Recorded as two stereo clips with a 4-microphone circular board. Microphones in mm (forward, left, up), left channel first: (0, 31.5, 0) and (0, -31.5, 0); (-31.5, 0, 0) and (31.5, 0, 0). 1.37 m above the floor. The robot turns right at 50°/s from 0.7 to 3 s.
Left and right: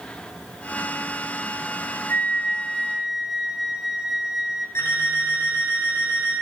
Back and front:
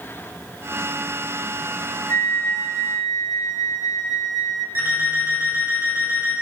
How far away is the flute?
About 1.0 m.